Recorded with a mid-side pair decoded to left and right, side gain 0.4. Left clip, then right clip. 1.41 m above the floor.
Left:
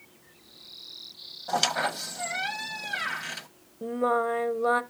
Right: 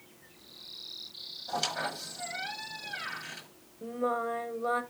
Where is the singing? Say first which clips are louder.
Left 6 dB; 55° left, 0.9 m.